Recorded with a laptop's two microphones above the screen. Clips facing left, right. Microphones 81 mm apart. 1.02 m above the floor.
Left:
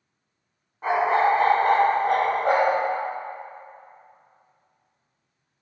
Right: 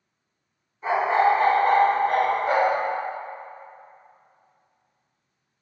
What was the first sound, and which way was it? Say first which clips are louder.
A dog barking: even; 55° left (ahead or behind).